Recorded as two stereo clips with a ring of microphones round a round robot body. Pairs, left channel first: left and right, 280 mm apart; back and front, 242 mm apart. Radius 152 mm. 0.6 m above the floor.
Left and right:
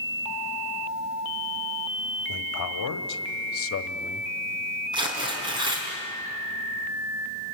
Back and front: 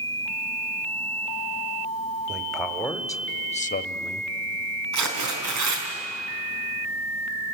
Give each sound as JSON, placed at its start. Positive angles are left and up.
{"t": 2.3, "sound": "a man speaking", "azimuth_deg": 85, "distance_m": 2.0}
{"t": 4.9, "sound": "tearing paper", "azimuth_deg": -15, "distance_m": 5.0}